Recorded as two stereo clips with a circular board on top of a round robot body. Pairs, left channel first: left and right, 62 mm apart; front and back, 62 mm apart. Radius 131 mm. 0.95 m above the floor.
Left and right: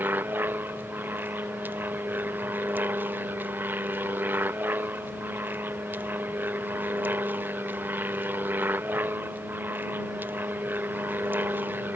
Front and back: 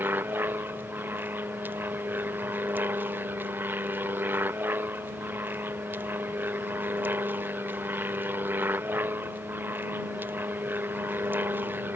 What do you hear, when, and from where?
0.0 s an aircraft: 135° right